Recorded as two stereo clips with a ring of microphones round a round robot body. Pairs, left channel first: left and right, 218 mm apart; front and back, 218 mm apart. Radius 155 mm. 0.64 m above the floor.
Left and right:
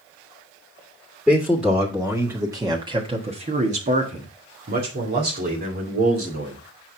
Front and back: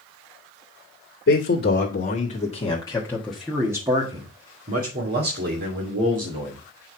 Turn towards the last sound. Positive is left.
turn(degrees=-145)